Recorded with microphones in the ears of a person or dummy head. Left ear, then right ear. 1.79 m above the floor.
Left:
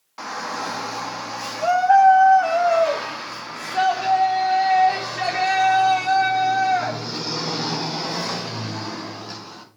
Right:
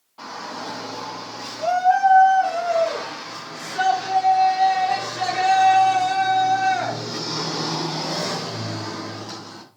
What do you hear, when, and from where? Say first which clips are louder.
0.2 s a shout: left 4 dB; 65° left (ahead or behind), 2.5 m; by 9.6 s 5° left (ahead or behind), 6.5 m